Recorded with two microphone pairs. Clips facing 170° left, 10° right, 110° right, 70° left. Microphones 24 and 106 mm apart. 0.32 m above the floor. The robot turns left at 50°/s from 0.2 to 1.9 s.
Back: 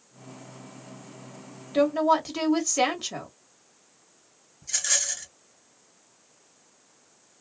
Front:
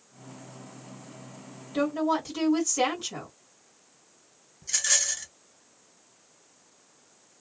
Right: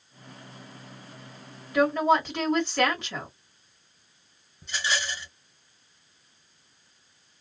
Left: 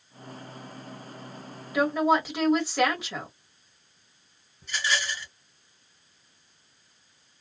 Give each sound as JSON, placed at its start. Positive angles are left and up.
{"t": 1.7, "sound": "a woman speaking", "azimuth_deg": 155, "distance_m": 1.4}
{"t": 4.6, "sound": "a rattle", "azimuth_deg": -80, "distance_m": 1.7}